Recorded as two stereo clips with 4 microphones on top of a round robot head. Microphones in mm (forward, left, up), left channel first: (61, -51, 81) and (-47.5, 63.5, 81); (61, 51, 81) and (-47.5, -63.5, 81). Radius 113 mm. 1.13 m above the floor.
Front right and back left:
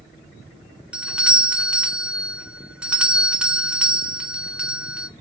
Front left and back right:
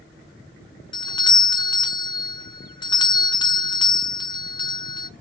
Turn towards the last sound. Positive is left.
turn(degrees=55)